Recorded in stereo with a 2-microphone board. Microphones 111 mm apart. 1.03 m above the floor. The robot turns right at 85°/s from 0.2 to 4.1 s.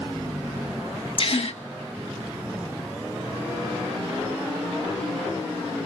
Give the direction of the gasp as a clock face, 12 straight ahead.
10 o'clock.